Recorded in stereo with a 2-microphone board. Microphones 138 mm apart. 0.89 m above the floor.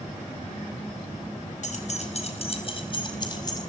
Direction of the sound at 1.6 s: 60° left (ahead or behind).